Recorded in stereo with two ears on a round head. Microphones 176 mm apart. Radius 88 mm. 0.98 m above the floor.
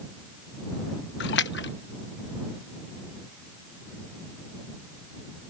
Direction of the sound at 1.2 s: 60° left (ahead or behind).